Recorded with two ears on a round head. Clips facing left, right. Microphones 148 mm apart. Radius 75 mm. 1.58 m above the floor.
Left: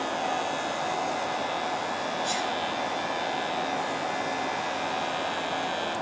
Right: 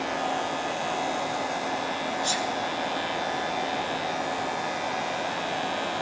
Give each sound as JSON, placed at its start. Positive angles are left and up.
{"t": 2.2, "sound": "a sneeze", "side_deg": -70, "distance_m": 3.5}